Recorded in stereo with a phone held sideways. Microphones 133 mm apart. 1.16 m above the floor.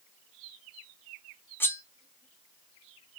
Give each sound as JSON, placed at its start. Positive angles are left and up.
{"t": 1.6, "sound": "cutlery clinking", "side_deg": 15, "distance_m": 0.5}